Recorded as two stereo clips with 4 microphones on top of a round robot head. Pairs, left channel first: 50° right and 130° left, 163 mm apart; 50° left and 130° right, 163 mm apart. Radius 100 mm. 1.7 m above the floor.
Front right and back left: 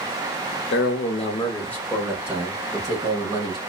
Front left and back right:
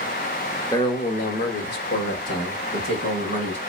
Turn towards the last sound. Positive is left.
turn(degrees=70)